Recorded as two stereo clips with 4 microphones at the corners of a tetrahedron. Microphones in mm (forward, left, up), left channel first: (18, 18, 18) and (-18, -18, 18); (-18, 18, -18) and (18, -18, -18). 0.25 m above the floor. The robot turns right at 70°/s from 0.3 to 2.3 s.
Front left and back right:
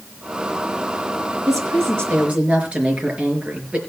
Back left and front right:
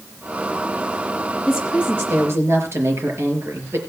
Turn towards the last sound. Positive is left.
turn(degrees=-75)